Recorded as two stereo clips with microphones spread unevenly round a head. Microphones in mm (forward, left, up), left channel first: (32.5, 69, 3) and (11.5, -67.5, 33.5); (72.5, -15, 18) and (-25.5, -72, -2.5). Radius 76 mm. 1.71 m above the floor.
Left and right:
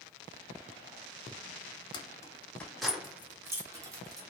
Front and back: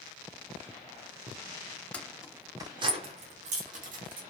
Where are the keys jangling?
40° left, 0.6 m; by 4.2 s 160° right, 1.1 m.